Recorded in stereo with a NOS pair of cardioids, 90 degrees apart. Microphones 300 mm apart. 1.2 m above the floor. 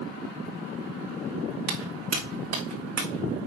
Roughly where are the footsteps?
Ahead right.